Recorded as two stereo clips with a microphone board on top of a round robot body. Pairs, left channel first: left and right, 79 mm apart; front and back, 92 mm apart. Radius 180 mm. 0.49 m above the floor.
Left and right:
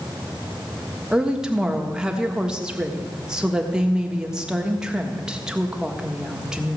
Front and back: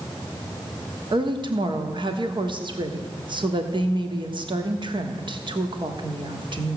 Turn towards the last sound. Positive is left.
turn(degrees=-170)